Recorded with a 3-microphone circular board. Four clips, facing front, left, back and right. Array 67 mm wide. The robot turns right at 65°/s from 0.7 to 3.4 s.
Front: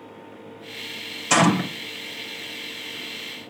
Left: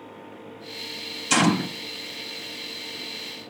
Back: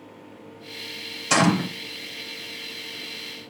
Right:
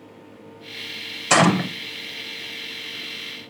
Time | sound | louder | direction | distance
1.3 | a gunshot | right 4 dB, front 2 dB | 85° right | 2 m